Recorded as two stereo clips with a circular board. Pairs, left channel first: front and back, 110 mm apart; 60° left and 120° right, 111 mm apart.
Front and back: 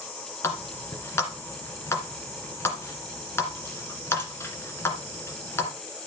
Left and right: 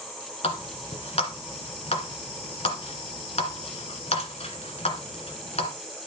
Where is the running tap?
65° left, 1.8 m.